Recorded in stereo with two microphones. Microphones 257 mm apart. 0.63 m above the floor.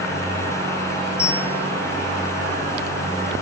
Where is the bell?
5° right (ahead or behind), 8.5 m.